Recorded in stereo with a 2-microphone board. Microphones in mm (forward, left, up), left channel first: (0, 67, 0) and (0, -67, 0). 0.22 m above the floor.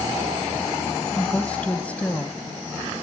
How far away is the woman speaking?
About 1.0 m.